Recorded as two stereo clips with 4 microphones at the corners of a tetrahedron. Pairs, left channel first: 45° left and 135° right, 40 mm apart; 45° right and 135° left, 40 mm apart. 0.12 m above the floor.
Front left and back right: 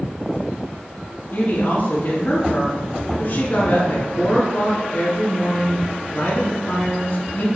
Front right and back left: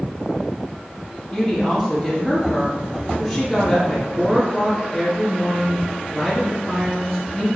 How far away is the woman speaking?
About 1.9 m.